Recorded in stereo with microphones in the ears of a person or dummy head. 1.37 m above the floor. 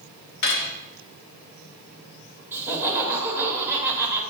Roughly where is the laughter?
Centre.